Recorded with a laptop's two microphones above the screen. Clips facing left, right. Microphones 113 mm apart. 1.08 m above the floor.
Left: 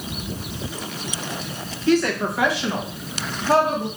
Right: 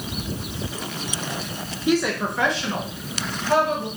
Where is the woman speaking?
15° right (ahead or behind), 0.7 m; by 3.9 s 45° left (ahead or behind), 1.2 m.